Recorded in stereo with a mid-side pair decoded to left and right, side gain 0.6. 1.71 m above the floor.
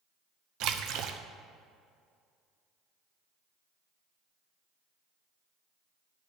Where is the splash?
65° right, 0.8 m.